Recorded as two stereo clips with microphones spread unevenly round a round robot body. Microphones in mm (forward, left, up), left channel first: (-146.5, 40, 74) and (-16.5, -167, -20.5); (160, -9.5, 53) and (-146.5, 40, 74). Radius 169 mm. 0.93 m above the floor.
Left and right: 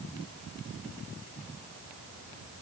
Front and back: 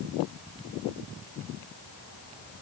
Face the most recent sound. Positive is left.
No sound to turn to.